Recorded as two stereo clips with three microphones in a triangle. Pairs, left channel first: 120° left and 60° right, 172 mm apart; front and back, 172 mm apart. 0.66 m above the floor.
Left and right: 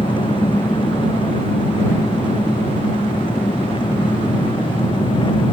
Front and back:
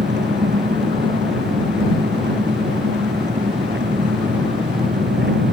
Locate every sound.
0.0 s an engine running: straight behind